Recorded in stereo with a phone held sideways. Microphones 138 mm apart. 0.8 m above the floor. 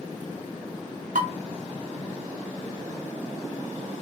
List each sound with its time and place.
1.1 s dishes clattering: 65° right (ahead or behind), 1.1 m